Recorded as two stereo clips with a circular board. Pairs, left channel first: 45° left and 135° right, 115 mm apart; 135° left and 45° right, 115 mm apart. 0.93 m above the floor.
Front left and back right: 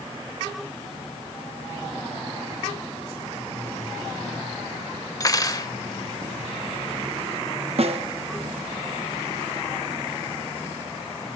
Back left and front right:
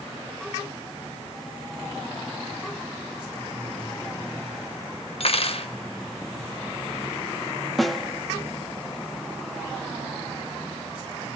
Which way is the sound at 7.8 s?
135° right.